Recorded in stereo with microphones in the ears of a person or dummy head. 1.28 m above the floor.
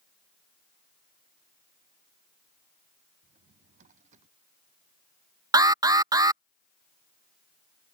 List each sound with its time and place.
3.2 s a drawer: 45° right (ahead or behind)
5.5 s an alarm: 25° right (ahead or behind)